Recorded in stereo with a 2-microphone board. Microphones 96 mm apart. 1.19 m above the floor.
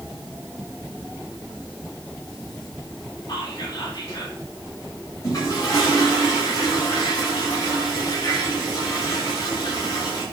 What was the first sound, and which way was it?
Whispering, 45° left (ahead or behind).